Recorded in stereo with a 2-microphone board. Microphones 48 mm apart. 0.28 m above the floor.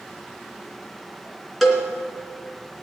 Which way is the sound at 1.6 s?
5° left (ahead or behind).